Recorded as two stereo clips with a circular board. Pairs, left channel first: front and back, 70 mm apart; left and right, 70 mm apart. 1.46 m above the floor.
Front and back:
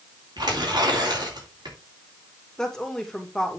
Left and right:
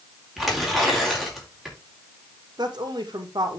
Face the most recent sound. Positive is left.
turn(degrees=-80)